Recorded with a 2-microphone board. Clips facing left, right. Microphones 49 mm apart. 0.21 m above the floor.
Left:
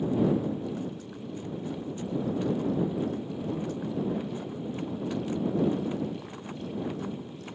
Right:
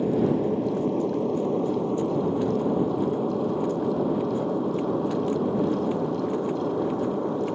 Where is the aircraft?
65° right (ahead or behind); by 7.6 s 70° right (ahead or behind).